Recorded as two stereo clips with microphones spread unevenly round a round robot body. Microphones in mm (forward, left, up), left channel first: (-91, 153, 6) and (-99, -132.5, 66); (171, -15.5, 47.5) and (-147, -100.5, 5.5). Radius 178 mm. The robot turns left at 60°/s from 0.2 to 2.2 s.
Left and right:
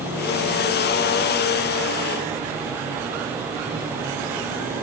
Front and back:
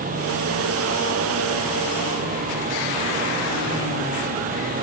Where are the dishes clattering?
I don't hear dishes clattering.